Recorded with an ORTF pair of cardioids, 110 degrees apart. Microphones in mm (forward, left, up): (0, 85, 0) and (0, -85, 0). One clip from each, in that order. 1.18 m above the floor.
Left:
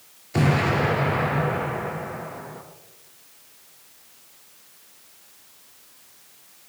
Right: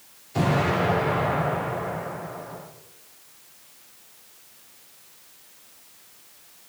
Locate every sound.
0.3 s an explosion: 65° left, 5.5 m